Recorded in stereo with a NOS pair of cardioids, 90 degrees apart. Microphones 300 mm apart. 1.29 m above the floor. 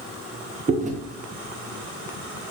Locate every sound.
0.7 s chewing: 25° right, 0.8 m